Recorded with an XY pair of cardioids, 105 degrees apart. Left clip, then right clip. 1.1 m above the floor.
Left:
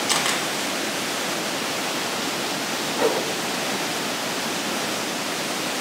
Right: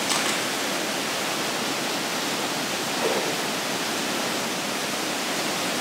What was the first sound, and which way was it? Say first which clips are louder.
A camera shutter: left 3 dB; 30° left.